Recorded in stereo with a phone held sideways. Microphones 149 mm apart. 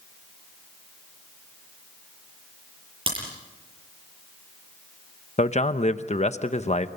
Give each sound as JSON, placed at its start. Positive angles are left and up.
{"t": 3.1, "sound": "a crack", "side_deg": -35, "distance_m": 8.0}
{"t": 5.4, "sound": "a man speaking", "side_deg": 50, "distance_m": 0.9}